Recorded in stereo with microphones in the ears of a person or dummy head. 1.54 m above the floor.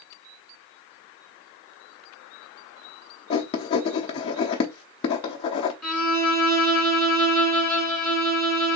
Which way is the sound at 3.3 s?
30° left (ahead or behind).